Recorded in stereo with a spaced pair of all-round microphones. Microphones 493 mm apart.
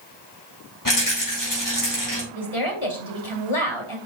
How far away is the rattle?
About 5 m.